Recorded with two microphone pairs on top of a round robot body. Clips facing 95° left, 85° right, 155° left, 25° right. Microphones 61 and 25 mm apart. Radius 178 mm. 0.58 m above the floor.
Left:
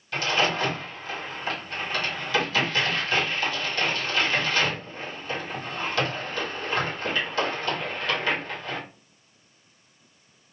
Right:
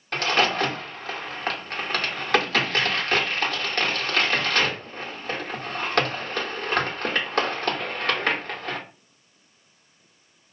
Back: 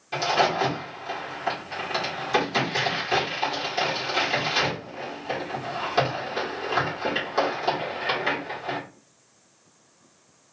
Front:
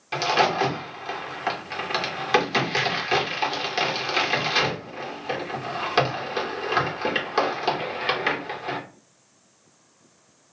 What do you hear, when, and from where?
0.1 s a crack: 80° right, 1.5 m